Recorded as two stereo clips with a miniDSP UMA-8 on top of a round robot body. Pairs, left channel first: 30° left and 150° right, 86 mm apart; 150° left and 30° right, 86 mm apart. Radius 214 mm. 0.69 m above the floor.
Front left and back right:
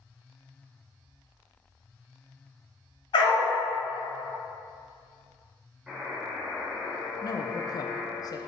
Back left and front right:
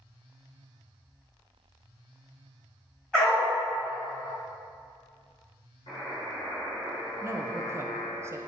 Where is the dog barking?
65° left, 1.0 m.